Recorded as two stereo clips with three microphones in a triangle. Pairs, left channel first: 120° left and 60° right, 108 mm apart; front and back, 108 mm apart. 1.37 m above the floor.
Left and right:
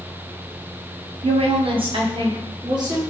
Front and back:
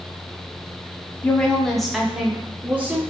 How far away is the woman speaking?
About 0.8 m.